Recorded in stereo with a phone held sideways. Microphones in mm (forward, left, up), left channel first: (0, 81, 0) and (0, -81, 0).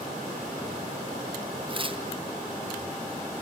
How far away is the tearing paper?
About 0.7 m.